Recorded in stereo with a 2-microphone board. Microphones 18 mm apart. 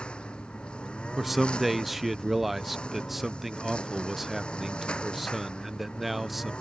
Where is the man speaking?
10° right (ahead or behind).